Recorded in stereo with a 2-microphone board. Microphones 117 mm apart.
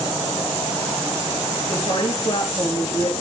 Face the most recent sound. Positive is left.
turn(degrees=50)  # may be behind; listen again after turning